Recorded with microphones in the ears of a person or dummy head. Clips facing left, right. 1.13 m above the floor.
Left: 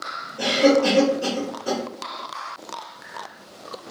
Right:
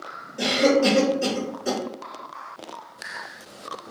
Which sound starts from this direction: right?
A cough, at 0.4 s.